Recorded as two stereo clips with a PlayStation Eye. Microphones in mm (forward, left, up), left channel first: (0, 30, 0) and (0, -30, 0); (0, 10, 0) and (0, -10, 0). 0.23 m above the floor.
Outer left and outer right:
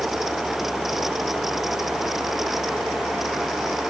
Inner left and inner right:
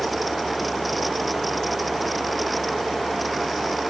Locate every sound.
Only background noise.